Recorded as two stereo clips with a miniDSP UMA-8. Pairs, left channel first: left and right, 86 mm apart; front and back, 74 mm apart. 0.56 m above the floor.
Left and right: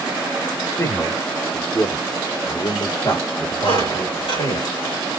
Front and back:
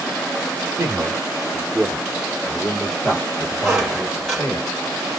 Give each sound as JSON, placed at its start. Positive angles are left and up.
{"t": 0.8, "sound": "a man speaking", "azimuth_deg": 140, "distance_m": 1.1}
{"t": 3.6, "sound": "a squeak", "azimuth_deg": 95, "distance_m": 3.5}